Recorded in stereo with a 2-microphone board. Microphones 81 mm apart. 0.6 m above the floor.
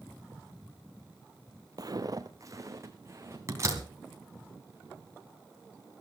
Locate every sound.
1.8 s footsteps: 50° right (ahead or behind), 0.9 m; by 3.4 s 35° right (ahead or behind), 3 m
3.5 s a door slam: 40° right (ahead or behind), 3.5 m